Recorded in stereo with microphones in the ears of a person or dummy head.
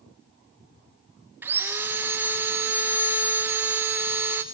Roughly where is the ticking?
I don't hear ticking.